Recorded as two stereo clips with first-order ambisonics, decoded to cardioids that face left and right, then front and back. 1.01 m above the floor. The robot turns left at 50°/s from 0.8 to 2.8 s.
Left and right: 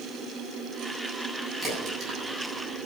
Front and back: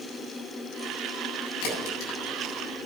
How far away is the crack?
About 7.5 m.